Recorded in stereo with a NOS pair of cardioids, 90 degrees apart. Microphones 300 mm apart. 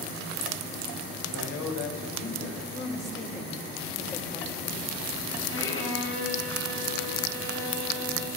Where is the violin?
45° left, 8.5 m.